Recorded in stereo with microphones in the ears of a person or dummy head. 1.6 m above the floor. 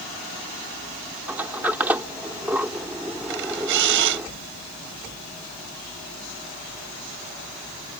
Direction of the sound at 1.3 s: 10° right (ahead or behind).